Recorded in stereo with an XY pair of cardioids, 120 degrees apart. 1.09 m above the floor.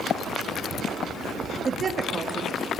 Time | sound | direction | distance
1.6 | a woman speaking | 35° right | 2 m